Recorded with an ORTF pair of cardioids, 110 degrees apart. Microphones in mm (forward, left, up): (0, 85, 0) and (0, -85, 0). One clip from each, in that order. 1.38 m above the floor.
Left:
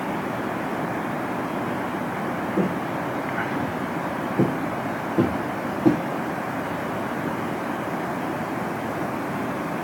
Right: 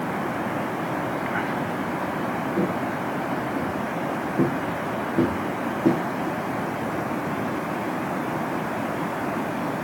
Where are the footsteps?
5° left, 5 m.